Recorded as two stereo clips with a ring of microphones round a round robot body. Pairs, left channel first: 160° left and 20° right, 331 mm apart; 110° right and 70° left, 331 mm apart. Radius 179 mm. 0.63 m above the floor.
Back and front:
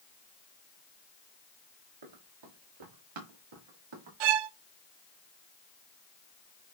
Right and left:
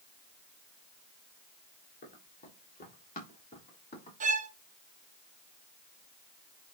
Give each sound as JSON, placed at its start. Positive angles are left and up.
{"t": 2.0, "sound": "running footsteps", "azimuth_deg": -45, "distance_m": 4.0}
{"t": 4.2, "sound": "a violin", "azimuth_deg": -5, "distance_m": 0.6}